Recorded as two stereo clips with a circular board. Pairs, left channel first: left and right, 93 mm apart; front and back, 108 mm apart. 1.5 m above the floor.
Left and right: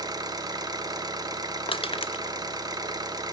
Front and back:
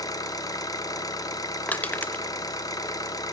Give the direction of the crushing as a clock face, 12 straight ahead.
9 o'clock.